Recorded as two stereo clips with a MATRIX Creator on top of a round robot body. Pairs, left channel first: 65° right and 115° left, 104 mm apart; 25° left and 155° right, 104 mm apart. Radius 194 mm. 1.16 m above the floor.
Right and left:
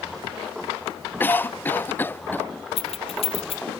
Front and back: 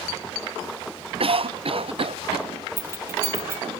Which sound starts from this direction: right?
Keys jangling, at 2.8 s.